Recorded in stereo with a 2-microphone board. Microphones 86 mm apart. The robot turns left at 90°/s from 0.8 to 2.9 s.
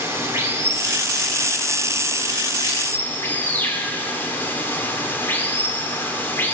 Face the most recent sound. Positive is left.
turn(degrees=25)